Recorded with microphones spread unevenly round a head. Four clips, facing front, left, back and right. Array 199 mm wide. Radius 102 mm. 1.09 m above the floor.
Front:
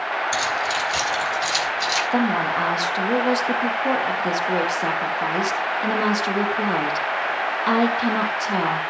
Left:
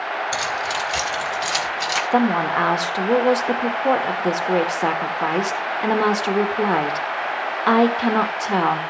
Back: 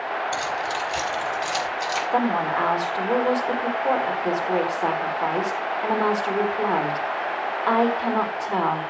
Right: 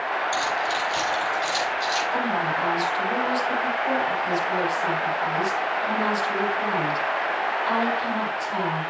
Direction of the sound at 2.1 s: 75° left.